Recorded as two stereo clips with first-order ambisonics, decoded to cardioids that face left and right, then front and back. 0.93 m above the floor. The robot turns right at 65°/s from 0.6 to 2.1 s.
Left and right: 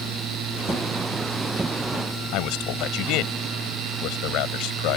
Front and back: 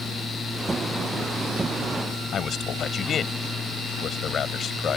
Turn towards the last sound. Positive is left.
turn(degrees=60)